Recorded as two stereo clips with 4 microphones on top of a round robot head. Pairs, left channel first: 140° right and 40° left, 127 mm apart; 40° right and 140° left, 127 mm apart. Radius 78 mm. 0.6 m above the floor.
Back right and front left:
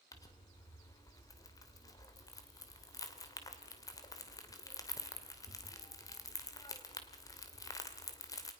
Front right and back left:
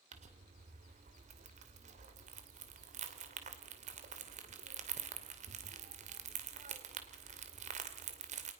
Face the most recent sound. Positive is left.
turn(degrees=160)